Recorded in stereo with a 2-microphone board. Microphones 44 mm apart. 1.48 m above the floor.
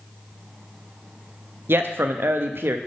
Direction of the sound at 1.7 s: 60° right (ahead or behind).